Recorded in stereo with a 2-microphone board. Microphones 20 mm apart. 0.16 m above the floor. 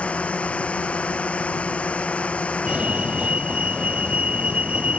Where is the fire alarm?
65° right (ahead or behind).